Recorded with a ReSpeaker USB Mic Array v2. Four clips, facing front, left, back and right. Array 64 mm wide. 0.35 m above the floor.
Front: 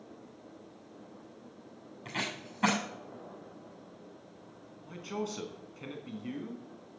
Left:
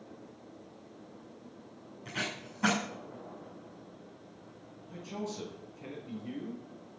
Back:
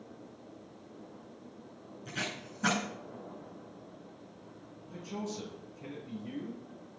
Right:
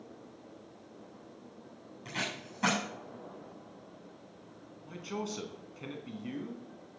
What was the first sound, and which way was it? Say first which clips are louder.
Tape being pulled: even, front 1 dB; 10° right.